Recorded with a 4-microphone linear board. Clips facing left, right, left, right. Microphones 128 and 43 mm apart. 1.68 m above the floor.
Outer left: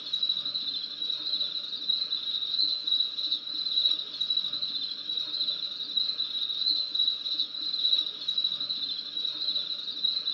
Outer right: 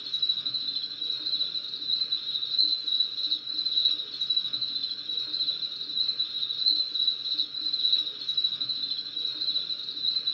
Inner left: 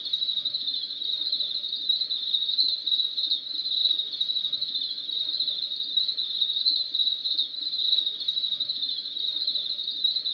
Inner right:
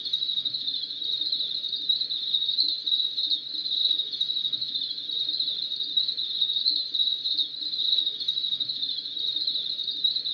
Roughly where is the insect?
Centre.